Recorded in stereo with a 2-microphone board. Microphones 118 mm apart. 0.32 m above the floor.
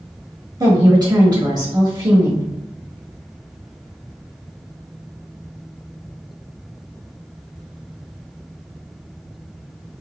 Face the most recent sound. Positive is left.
turn(degrees=-40)  # may be behind; listen again after turning